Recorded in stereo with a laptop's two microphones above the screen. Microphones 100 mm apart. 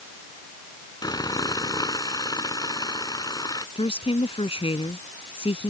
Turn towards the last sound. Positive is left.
turn(degrees=70)  # may be behind; listen again after turning